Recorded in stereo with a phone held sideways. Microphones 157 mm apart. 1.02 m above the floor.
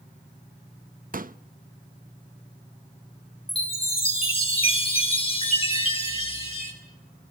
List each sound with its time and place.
1.1 s a pop: 60° right (ahead or behind), 0.6 m
3.5 s a chime: 35° left (ahead or behind), 6 m